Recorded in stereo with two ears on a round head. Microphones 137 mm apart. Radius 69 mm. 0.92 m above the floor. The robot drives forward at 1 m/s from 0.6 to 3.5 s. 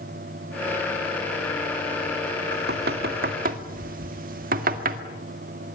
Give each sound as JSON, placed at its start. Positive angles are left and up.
{"t": 2.5, "sound": "knocking", "side_deg": -75, "distance_m": 1.9}